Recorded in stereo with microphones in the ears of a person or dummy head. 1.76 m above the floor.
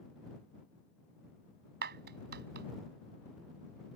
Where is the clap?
55° right (ahead or behind).